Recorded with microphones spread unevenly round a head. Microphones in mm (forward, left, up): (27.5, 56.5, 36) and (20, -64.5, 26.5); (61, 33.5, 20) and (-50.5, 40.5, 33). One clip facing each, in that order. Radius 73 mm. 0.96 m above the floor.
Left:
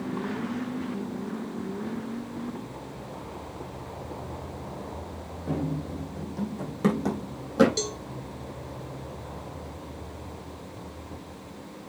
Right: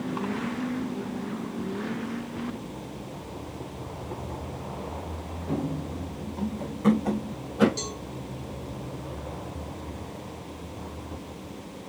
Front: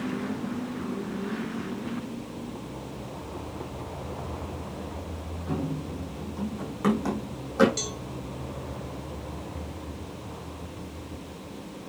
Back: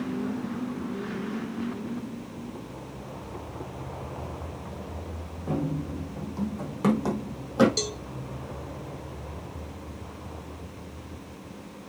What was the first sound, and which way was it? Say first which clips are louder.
Running footsteps: even, back 2 dB; 130° left.